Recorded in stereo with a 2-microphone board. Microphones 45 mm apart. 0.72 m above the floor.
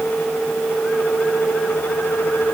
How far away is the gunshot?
No gunshot in this recording.